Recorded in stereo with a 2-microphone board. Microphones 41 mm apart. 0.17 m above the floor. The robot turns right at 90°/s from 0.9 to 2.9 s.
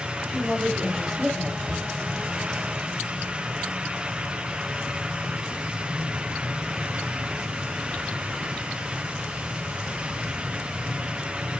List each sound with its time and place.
0.3 s a woman speaking: straight behind, 4.5 m; by 1.6 s 120° right, 4.5 m
1.7 s a cupboard door: 40° right (ahead or behind), 4.5 m; by 1.9 s 20° right (ahead or behind), 4.5 m